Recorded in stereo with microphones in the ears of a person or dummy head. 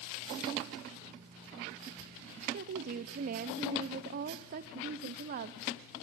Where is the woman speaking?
50° right (ahead or behind), 0.8 m.